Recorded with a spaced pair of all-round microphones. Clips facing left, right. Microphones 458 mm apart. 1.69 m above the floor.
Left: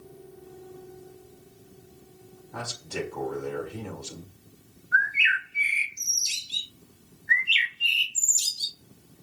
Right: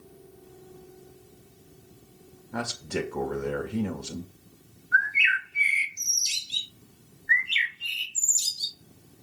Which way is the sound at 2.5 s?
80° right.